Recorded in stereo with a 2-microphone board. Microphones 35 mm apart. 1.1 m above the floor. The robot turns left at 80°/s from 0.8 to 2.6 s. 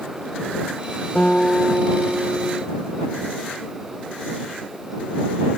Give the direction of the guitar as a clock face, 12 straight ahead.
10 o'clock.